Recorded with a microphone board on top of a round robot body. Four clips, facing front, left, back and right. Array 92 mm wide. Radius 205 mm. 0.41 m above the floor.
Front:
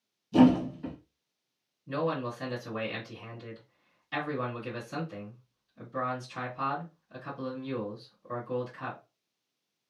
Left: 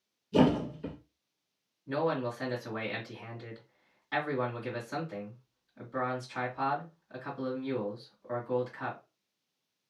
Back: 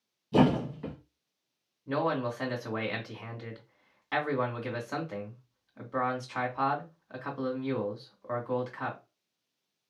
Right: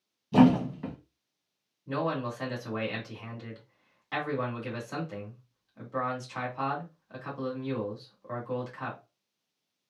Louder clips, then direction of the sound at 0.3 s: Right 4 dB, front 3 dB; 115° right.